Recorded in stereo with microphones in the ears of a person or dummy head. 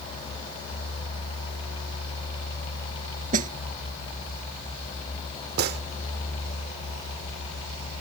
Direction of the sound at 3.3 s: 40° right (ahead or behind).